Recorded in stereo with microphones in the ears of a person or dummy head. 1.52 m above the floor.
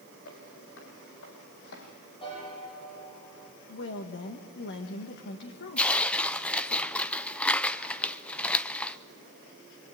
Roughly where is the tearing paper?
Centre.